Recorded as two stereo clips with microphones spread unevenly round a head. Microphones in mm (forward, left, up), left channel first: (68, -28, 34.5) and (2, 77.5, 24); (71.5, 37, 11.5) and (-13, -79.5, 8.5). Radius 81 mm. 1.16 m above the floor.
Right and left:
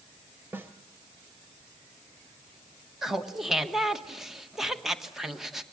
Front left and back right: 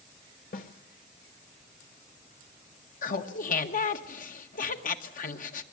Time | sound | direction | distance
0.5 | a snare drum | 50° left | 1.5 m
3.0 | laughter | 35° left | 1.7 m